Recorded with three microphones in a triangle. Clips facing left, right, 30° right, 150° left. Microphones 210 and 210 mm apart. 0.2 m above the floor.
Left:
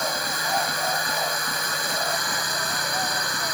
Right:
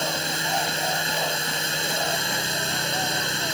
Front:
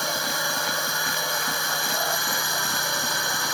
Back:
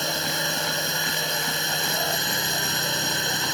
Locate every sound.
0.0 s a drone: 150° right